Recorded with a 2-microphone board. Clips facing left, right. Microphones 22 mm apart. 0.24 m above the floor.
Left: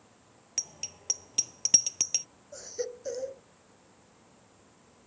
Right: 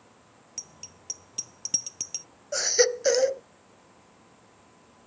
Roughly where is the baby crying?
Right.